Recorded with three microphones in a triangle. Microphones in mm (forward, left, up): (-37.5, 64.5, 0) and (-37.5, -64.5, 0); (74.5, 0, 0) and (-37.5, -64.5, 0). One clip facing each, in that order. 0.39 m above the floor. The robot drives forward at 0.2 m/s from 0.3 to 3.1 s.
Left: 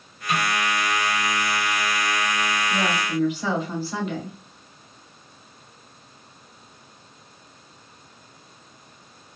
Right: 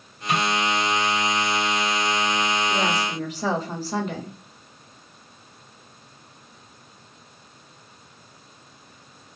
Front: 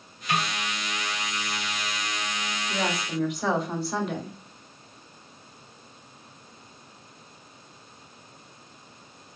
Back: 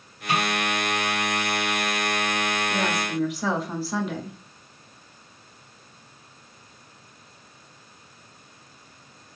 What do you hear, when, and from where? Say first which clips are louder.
0.3 s a snare drum: right 1 dB, back 3 dB; 130° right, 1.8 m
2.7 s a woman speaking: even, back 3 dB; 60° right, 1.1 m; by 4.4 s 65° right, 1.0 m